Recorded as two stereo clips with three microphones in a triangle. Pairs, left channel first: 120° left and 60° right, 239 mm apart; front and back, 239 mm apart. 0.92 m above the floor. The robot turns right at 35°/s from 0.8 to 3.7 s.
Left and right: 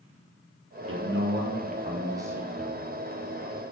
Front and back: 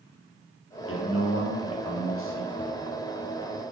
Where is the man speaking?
30° right, 0.6 m; by 2.9 s 40° left, 0.6 m.